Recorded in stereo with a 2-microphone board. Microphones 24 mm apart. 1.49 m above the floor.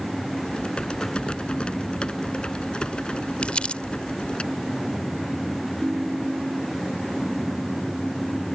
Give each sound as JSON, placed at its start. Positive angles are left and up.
{"t": 0.5, "sound": "typing on a keyboard", "side_deg": 50}
{"t": 3.4, "sound": "crumpling", "side_deg": 55}
{"t": 5.8, "sound": "a ringtone", "side_deg": -40}